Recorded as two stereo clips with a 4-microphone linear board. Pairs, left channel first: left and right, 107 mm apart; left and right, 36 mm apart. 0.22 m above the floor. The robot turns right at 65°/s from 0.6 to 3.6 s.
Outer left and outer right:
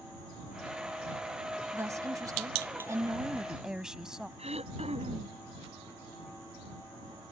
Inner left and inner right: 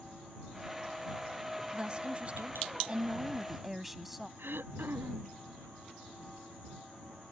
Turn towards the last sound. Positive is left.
turn(degrees=-75)  # may be behind; listen again after turning